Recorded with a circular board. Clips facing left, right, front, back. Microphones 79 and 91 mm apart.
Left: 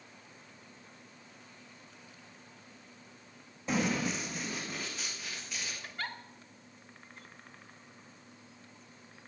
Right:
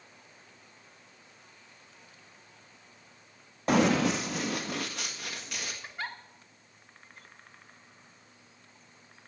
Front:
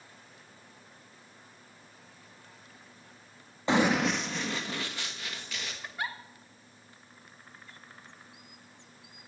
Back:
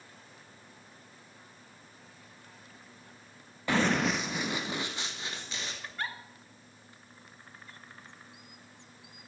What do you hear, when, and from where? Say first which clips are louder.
3.7 s running footsteps: right 7 dB, front 2 dB; 65° right, 0.6 m; by 5.7 s 115° right, 2.5 m
5.8 s a giggle: right 1 dB, front 3 dB; 60° right, 1.0 m